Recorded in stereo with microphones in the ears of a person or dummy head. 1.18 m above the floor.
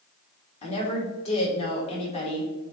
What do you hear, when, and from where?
0.6 s a woman speaking: 30° left (ahead or behind), 1.9 m